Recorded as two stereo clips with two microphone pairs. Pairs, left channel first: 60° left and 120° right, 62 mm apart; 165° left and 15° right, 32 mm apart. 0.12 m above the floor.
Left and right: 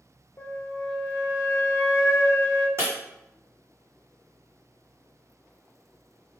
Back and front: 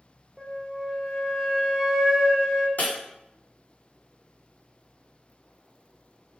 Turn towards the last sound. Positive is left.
turn(degrees=-165)